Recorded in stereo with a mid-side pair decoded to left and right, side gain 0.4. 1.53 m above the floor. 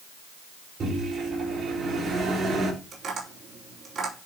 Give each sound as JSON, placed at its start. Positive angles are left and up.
{"t": 0.8, "sound": "a microwave", "azimuth_deg": -55, "distance_m": 5.0}
{"t": 2.9, "sound": "tapping", "azimuth_deg": -60, "distance_m": 4.5}